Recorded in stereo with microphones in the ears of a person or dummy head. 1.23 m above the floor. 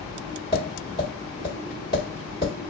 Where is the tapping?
35° right (ahead or behind), 1.5 m.